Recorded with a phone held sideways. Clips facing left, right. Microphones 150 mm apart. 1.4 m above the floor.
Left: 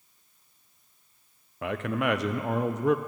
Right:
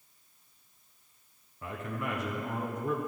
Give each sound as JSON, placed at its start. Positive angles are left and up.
{"t": 1.6, "sound": "a man speaking", "side_deg": 85, "distance_m": 0.6}